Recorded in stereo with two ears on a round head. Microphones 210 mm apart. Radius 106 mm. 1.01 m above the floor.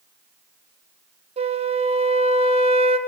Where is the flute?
25° right (ahead or behind), 0.9 m.